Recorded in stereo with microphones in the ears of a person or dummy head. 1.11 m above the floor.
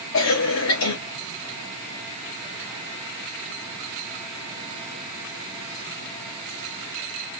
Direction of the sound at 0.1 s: 65° left (ahead or behind).